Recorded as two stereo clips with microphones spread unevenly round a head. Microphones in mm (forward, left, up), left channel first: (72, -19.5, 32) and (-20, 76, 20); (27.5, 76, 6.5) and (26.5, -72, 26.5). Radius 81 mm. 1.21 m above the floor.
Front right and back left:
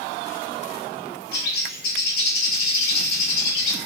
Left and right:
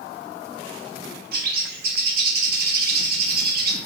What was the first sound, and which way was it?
A bird, 70° right.